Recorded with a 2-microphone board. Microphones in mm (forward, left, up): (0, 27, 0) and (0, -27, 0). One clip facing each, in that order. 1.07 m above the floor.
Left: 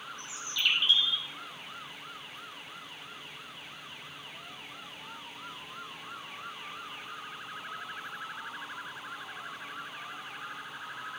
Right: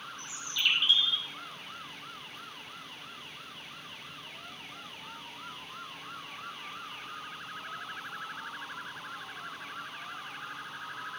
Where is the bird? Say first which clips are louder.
Even; centre (ahead or behind), 1.5 m.